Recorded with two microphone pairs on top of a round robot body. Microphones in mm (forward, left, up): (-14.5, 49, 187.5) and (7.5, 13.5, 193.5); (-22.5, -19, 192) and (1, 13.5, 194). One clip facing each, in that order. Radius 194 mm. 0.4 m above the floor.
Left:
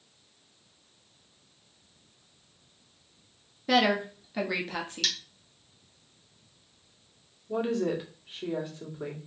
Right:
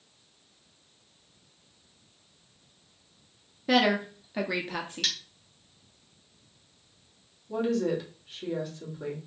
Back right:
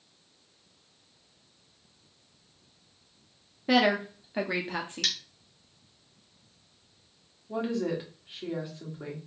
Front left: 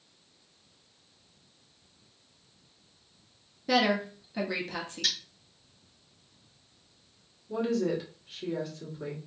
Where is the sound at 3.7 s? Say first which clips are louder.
Even, back right 2 dB; 155° right, 0.9 m.